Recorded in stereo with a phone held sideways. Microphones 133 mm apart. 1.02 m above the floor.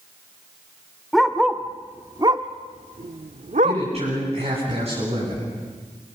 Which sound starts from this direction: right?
A man speaking, at 3.6 s.